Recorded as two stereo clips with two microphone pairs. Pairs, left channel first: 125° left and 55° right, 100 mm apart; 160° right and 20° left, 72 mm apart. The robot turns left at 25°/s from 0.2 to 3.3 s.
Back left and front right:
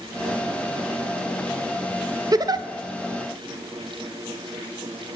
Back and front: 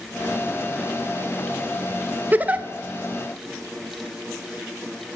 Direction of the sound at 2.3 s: 25° right.